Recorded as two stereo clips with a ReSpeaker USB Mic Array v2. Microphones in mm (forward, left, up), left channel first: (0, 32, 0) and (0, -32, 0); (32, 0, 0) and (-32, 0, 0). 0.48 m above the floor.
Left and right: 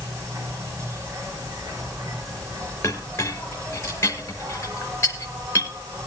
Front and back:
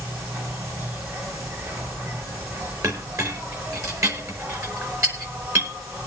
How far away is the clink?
About 5 m.